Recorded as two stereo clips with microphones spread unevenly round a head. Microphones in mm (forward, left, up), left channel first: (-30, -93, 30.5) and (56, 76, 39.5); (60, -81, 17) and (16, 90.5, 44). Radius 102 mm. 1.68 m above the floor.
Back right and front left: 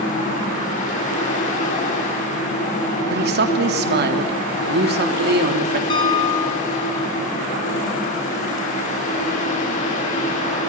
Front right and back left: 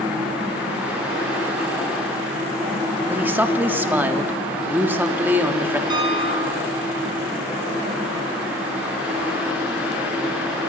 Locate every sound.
0.0 s a fan: 170° right, 6.5 m
3.1 s a man speaking: 25° left, 3.5 m
5.9 s a piano: 175° left, 3 m